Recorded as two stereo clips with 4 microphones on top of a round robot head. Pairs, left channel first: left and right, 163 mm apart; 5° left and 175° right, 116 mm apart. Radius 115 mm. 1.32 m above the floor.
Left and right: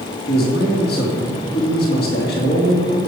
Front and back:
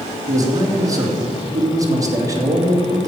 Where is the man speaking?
125° left, 3 m.